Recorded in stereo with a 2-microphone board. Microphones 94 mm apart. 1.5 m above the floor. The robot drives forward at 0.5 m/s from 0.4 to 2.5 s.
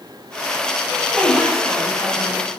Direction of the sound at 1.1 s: 10° right (ahead or behind).